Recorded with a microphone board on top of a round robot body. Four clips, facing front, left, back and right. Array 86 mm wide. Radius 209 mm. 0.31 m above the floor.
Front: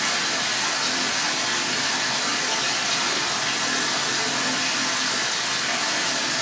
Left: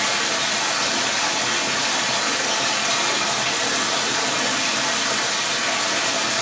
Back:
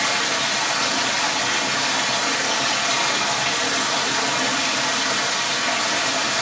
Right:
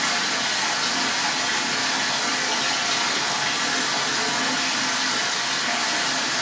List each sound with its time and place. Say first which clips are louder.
0.0 s running water: left 2 dB, back 4 dB; 125° left, 1.3 m